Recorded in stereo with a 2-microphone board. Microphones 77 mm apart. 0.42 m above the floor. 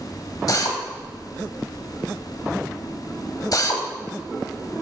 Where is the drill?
55° left (ahead or behind), 1.3 m.